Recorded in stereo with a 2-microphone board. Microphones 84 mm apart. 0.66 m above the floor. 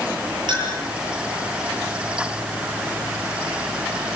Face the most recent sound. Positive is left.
turn(degrees=-65)  # may be behind; listen again after turning